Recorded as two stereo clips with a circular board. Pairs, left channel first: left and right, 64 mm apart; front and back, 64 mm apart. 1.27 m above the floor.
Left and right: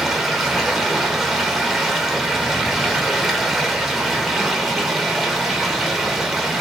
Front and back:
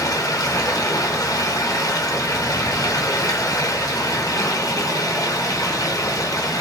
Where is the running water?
5° right, 0.8 m.